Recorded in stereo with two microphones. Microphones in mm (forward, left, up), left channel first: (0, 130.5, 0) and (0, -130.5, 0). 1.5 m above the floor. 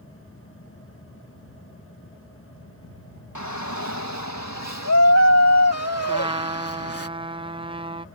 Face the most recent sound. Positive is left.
turn(degrees=-20)  # may be behind; listen again after turning